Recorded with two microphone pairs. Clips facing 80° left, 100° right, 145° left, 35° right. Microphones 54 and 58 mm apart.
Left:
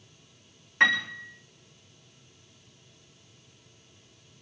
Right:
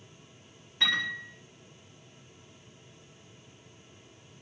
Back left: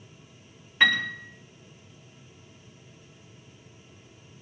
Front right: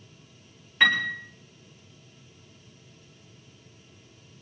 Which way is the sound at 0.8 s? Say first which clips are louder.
Left 7 dB, even; 50° left.